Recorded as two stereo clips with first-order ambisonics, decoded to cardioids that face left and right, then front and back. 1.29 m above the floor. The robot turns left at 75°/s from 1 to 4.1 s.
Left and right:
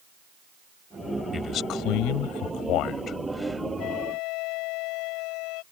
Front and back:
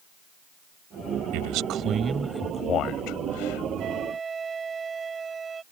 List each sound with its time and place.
1.3 s a man speaking: 160° left; by 3.7 s 15° right
3.8 s a flute: 130° left; by 5.6 s 110° left